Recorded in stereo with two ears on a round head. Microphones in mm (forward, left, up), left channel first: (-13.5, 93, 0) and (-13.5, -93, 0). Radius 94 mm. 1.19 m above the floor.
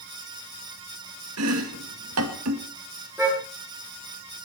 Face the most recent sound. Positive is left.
turn(degrees=-10)  # may be behind; listen again after turning